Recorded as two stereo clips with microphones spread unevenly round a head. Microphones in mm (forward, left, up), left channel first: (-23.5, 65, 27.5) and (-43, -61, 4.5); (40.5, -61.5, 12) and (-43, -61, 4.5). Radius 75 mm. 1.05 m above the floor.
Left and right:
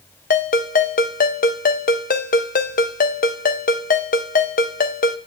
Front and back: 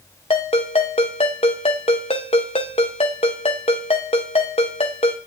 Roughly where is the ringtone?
Ahead left.